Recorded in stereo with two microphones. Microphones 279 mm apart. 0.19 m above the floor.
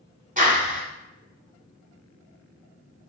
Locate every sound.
0.4 s a clap: 30° right (ahead or behind), 1.0 m